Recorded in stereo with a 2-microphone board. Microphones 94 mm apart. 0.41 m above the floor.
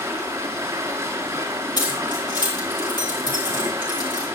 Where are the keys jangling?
45° left (ahead or behind), 4.5 m.